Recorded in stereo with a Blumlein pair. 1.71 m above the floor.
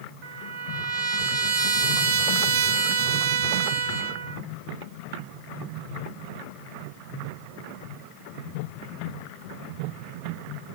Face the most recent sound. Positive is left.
turn(degrees=-40)